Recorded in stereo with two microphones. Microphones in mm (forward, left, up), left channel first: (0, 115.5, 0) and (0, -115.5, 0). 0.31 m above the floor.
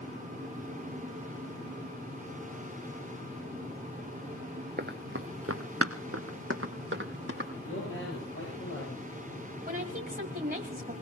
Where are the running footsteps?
40° right (ahead or behind), 1.6 m; by 7.5 s 50° right (ahead or behind), 3.5 m.